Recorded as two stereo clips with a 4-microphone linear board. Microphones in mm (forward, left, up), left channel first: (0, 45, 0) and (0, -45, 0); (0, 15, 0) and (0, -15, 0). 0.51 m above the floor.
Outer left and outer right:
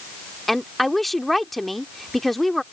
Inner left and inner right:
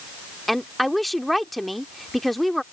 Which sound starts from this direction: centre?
A woman speaking, at 0.5 s.